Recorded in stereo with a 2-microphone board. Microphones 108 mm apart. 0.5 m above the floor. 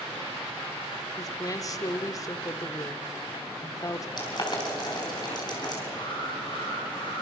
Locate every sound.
1.2 s a woman speaking: 35° left (ahead or behind), 1.1 m
4.2 s boiling: 40° left (ahead or behind), 4.5 m
5.9 s an alarm: 45° left (ahead or behind), 8.5 m